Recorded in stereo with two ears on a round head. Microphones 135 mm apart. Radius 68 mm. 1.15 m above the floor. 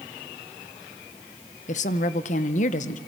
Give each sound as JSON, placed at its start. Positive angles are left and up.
{"t": 1.7, "sound": "a woman speaking", "side_deg": 55, "distance_m": 0.7}